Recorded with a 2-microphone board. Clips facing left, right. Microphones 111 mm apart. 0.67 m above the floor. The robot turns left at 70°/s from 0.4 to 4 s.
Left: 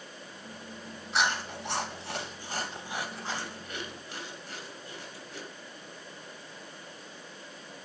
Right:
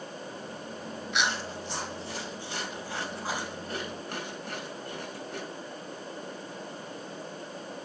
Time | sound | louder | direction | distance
1.1 | chewing | left 2 dB | 35° left (ahead or behind) | 3 m